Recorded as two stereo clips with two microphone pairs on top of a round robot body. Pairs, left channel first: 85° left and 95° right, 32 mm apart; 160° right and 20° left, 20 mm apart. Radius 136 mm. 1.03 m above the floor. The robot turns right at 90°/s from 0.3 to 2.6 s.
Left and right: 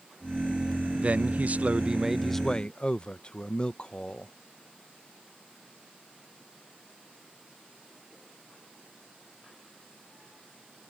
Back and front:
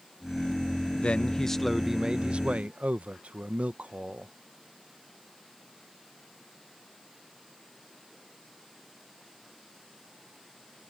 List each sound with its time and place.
1.0 s a man speaking: 130° right; by 4.3 s 15° left